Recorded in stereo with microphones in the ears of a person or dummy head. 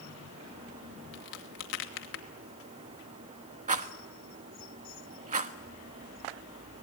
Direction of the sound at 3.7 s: 40° right (ahead or behind).